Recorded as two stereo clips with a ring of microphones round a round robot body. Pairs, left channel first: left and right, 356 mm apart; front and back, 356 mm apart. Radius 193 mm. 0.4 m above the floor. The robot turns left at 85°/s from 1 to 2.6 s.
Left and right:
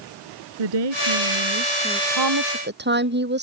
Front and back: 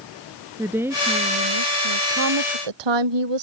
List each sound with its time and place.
0.6 s a woman speaking: 95° right; by 2.0 s straight behind
2.1 s a woman speaking: 110° right; by 3.4 s 150° right